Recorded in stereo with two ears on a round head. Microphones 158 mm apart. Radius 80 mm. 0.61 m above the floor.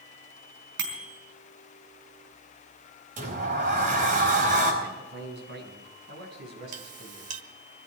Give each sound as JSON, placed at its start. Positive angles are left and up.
{"t": 0.8, "sound": "a bicycle bell", "side_deg": -70, "distance_m": 4.5}
{"t": 3.2, "sound": "a sliding door", "side_deg": -50, "distance_m": 4.5}
{"t": 4.8, "sound": "a man speaking", "side_deg": -65, "distance_m": 6.0}
{"t": 6.7, "sound": "a clink", "side_deg": -40, "distance_m": 1.3}